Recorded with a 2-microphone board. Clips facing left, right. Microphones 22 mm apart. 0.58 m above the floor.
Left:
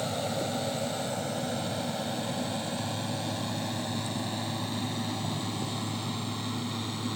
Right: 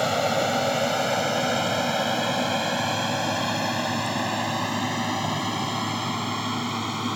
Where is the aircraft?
65° right (ahead or behind); by 7.2 s 60° right (ahead or behind).